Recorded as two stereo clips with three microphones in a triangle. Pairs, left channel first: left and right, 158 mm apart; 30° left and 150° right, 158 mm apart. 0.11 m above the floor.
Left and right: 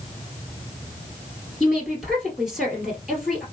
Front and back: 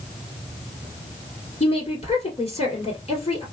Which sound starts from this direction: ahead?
A woman speaking, at 1.6 s.